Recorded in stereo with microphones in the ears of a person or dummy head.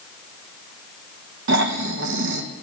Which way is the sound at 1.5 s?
65° right (ahead or behind).